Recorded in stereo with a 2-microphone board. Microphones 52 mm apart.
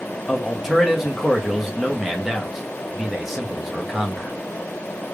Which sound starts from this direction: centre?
A man speaking, at 0.3 s.